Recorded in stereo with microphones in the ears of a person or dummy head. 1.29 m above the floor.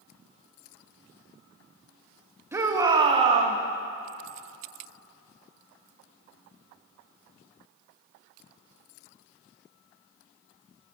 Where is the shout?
10° right (ahead or behind), 1.4 m; by 3.6 s 40° right (ahead or behind), 1.2 m.